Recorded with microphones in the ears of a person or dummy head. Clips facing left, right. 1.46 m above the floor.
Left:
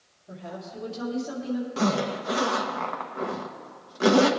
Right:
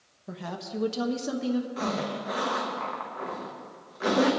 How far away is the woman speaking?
About 1.4 m.